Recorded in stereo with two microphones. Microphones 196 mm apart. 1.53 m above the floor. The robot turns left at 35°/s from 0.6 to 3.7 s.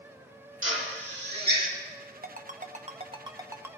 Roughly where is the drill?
Right.